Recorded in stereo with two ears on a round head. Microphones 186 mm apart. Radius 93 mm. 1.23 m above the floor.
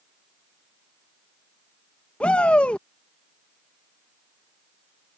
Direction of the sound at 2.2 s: 5° left (ahead or behind).